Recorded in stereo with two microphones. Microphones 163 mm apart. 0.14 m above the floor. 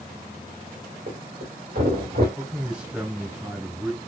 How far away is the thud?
About 2.5 m.